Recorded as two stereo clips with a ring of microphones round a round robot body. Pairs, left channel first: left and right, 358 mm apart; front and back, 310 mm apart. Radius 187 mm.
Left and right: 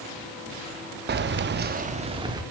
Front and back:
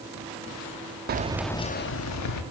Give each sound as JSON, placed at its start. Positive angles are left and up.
{"t": 1.1, "sound": "keys jangling", "azimuth_deg": -140, "distance_m": 0.6}